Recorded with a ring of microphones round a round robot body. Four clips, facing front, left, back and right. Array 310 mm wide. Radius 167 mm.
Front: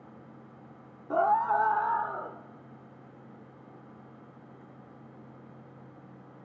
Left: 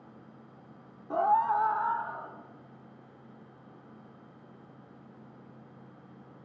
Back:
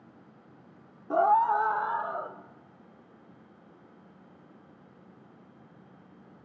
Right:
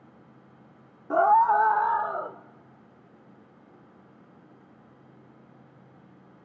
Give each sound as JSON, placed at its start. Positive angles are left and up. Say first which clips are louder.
{"t": 1.1, "sound": "a scream", "louder": "right 6 dB, back 2 dB", "azimuth_deg": -90, "distance_m": 0.8}